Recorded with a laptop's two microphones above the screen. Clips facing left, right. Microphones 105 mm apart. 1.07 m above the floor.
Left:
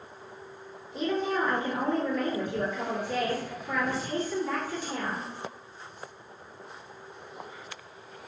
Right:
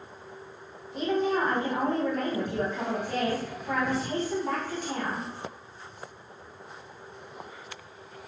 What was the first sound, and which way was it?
A woman speaking, 55° right (ahead or behind).